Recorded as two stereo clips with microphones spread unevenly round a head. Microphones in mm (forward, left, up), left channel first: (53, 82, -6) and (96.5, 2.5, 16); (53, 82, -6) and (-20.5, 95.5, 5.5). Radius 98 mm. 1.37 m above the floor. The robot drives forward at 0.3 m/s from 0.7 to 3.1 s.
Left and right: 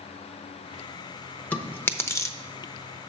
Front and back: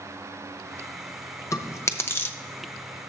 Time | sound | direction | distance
1.5 | chewing | 40° left | 0.8 m